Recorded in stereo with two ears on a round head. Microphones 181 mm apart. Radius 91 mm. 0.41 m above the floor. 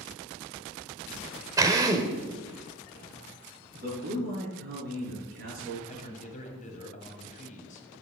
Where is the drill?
15° right (ahead or behind), 1.1 m.